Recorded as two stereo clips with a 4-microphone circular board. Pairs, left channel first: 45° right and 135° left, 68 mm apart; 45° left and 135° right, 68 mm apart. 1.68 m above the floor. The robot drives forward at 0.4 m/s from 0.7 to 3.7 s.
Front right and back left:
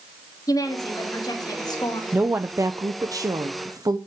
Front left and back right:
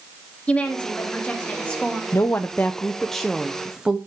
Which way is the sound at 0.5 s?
25° right.